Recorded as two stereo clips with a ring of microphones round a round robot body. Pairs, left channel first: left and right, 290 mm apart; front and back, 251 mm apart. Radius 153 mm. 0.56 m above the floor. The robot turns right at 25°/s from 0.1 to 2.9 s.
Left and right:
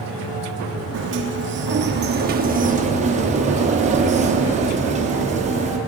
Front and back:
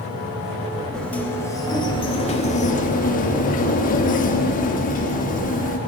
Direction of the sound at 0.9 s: 85° right.